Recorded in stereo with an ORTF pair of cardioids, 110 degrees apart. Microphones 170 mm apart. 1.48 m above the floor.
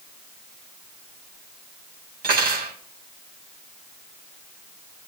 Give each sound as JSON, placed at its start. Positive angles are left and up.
{"t": 2.2, "sound": "cutlery clinking", "azimuth_deg": -60, "distance_m": 5.5}